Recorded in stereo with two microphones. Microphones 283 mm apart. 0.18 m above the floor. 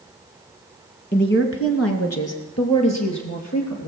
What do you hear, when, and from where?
1.1 s a woman speaking: 35° left (ahead or behind), 1.3 m; by 3.9 s 75° left (ahead or behind), 4 m